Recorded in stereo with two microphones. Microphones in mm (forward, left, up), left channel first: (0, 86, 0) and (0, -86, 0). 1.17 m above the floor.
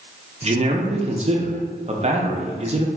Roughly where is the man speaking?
Right.